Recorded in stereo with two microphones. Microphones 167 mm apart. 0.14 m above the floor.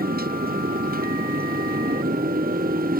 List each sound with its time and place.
0.0 s a motorcycle: 60° right (ahead or behind)